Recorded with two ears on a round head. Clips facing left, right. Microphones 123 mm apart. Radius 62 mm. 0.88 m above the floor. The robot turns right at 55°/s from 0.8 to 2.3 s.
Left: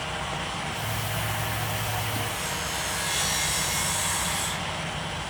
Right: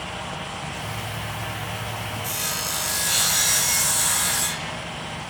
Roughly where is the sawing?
Right.